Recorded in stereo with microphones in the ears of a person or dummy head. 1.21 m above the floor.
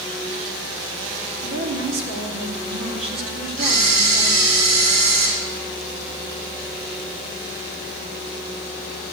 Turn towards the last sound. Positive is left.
turn(degrees=-70)  # may be behind; listen again after turning